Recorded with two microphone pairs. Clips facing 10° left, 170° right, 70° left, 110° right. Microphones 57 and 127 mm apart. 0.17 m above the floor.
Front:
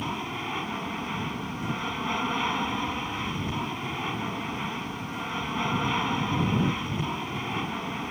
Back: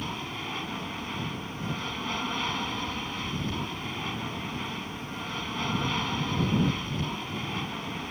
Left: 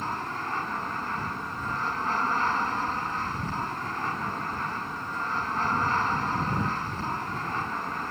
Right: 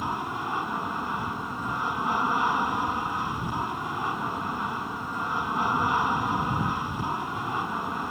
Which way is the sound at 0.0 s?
45° right.